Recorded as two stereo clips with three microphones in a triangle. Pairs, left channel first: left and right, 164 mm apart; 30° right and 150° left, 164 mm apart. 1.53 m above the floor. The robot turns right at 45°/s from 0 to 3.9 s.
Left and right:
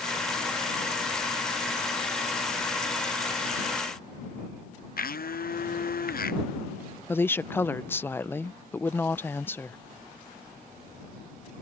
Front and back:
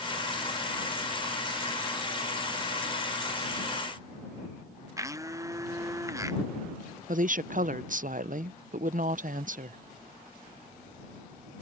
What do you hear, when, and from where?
5.0 s a blender: 85° left
7.1 s a woman speaking: 165° left